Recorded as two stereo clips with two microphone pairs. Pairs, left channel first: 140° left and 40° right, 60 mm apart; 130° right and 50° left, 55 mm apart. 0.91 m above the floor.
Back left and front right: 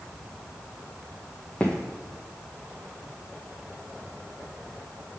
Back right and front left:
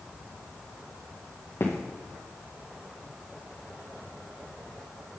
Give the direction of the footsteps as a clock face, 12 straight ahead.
5 o'clock.